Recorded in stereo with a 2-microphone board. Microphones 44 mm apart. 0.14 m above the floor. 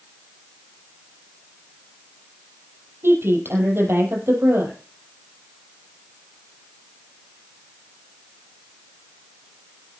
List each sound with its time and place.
3.0 s a woman speaking: 70° right (ahead or behind), 5 m